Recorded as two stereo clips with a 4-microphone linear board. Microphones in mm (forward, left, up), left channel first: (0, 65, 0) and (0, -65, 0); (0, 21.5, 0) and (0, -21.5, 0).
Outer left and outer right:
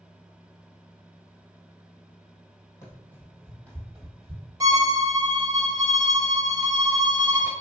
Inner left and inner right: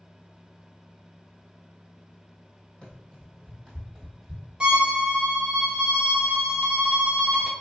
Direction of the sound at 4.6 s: 25° right (ahead or behind).